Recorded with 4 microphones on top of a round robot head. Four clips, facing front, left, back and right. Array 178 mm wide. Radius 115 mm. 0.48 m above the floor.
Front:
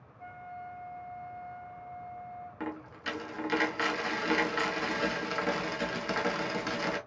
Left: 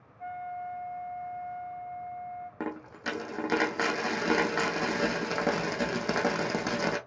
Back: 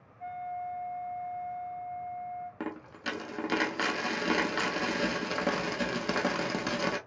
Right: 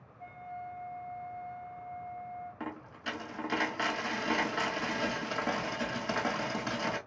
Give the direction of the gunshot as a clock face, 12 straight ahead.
No gunshot in this recording.